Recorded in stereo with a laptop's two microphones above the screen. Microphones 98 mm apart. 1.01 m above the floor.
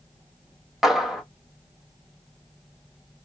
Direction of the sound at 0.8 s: Centre (ahead or behind).